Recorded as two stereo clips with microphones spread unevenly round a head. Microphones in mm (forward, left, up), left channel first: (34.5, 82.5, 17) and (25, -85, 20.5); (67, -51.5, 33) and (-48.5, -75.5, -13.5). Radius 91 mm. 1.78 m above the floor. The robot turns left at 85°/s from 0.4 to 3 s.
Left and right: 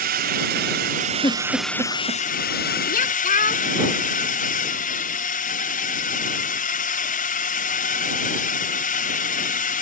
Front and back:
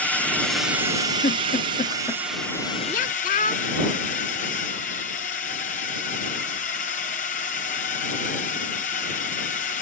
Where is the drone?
80° right; by 9.8 s 60° left.